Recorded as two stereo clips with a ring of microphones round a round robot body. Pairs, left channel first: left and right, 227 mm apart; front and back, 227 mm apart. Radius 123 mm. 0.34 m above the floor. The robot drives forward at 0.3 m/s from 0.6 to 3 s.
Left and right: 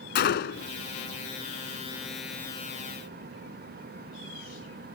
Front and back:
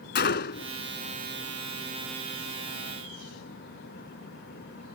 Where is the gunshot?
45° left.